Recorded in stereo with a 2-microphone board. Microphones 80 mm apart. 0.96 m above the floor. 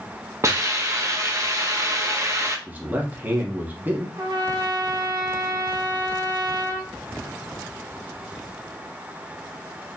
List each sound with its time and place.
0.4 s a hiss: 40° right (ahead or behind), 0.9 m
2.7 s a man speaking: 25° right (ahead or behind), 0.9 m
4.2 s a trumpet: 50° right (ahead or behind), 0.9 m